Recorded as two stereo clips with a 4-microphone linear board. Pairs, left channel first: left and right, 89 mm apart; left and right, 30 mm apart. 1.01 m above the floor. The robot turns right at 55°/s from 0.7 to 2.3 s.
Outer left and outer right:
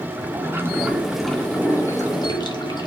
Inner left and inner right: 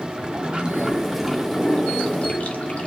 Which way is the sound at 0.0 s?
30° right.